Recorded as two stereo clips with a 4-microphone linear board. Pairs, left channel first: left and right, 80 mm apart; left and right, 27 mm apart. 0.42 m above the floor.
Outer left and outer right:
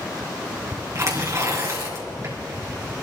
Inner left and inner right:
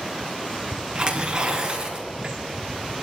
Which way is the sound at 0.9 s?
40° right (ahead or behind).